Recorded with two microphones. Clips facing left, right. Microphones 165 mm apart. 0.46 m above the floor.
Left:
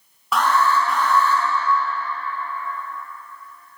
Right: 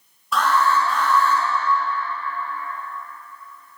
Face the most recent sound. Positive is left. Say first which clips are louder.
# left 1 dB
turn(degrees=75)  # may be behind; listen again after turning